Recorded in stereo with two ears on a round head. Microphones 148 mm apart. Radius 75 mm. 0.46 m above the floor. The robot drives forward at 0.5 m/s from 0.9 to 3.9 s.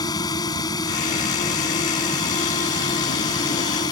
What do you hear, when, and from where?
0.0 s a drone: 25° left (ahead or behind)